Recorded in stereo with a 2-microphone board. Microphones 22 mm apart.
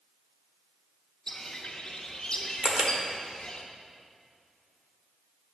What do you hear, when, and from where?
1.3 s a bird: 35° left (ahead or behind), 0.8 m
2.6 s a camera shutter: 55° right (ahead or behind), 1.1 m